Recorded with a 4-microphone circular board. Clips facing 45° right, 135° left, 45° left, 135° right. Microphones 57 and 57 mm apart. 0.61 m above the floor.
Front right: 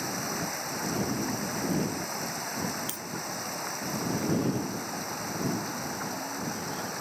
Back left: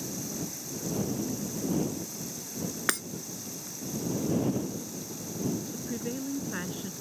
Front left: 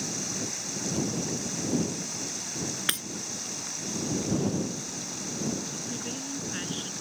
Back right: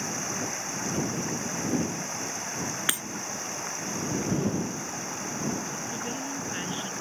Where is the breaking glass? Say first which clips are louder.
Back left 10 dB, back right 1 dB; 140° left.